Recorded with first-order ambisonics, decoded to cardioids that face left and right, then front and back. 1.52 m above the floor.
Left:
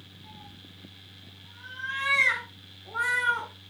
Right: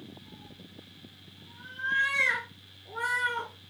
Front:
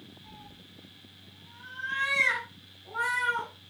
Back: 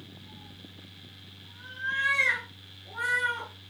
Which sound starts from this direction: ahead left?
A cat meowing, at 0.2 s.